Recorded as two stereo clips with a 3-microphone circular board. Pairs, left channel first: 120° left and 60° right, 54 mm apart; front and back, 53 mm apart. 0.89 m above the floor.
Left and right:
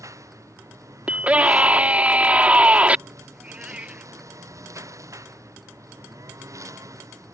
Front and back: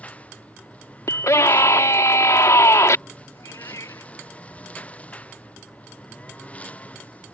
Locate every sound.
0.0 s a lawn mower: 65° right
1.1 s a scream: 5° left
3.3 s a cat meowing: 5° left